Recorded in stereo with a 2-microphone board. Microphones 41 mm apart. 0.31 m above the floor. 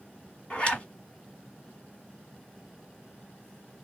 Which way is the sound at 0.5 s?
30° left (ahead or behind).